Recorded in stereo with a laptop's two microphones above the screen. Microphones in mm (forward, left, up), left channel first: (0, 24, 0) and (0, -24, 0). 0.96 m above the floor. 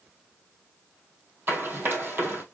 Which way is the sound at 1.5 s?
45° right (ahead or behind).